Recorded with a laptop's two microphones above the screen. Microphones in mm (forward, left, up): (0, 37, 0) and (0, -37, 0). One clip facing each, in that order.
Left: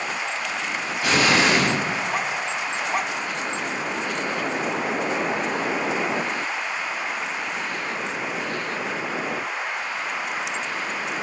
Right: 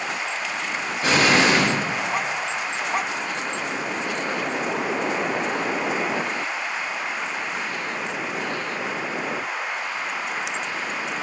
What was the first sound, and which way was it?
An explosion, 25° right (ahead or behind).